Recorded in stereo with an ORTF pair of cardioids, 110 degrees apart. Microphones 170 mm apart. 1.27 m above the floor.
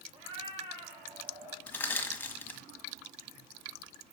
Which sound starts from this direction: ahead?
Crushing, at 1.7 s.